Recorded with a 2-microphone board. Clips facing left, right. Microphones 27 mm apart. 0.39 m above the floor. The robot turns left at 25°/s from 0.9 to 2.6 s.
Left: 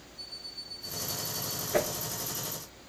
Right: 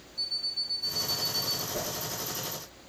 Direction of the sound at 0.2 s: 70° right (ahead or behind).